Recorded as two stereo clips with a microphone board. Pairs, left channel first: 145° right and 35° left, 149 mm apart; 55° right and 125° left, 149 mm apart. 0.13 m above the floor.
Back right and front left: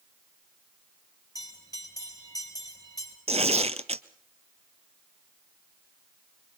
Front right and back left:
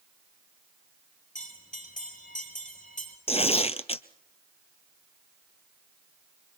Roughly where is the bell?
Right.